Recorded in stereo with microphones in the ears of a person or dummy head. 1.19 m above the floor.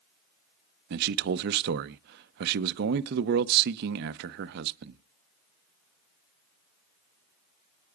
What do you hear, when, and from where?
0.9 s a man speaking: 65° right (ahead or behind), 0.6 m